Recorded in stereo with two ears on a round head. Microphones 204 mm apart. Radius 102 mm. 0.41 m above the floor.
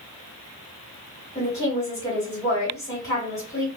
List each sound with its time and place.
1.4 s a woman speaking: 15° left (ahead or behind), 1.6 m